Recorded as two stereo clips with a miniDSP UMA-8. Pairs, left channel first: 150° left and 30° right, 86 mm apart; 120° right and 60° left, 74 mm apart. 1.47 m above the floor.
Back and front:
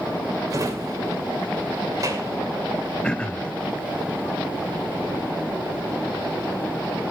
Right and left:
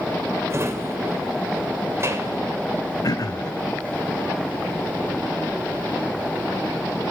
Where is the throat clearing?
135° right, 0.7 m.